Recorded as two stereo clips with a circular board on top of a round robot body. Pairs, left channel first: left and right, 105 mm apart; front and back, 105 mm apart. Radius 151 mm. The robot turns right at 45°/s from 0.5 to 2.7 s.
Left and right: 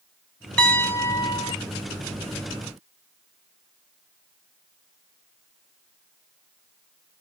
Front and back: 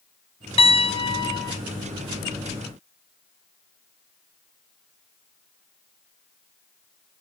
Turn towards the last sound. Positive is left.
turn(degrees=110)